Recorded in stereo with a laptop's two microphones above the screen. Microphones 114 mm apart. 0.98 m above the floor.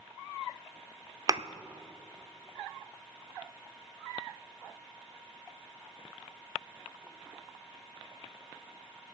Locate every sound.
1.3 s a thud: 35° right (ahead or behind), 0.6 m